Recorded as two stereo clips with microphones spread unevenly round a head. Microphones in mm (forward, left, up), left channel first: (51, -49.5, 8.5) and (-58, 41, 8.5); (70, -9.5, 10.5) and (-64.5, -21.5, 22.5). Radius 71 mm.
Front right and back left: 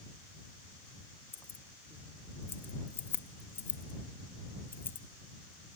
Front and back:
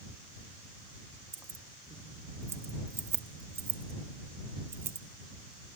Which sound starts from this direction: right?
Keys jangling, at 1.3 s.